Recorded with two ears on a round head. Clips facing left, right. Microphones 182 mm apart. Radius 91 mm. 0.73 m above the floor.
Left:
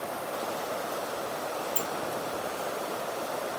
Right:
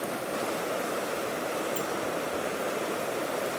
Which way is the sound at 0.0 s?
30° right (ahead or behind).